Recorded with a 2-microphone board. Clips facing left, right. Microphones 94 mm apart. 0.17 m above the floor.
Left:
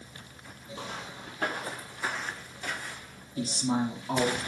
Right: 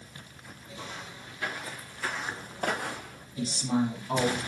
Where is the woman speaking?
55° left (ahead or behind), 3 m.